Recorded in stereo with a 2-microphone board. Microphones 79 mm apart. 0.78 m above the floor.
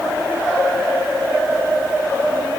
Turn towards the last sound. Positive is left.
No sound to turn to.